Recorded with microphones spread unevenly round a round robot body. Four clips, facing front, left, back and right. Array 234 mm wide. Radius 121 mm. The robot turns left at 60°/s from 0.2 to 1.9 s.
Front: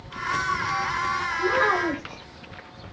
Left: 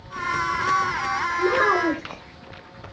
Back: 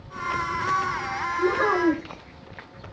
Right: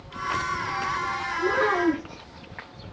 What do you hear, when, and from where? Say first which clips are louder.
1.4 s a child speaking: left 2 dB, back 2 dB; 110° left, 1.7 m; by 2.2 s 80° left, 1.7 m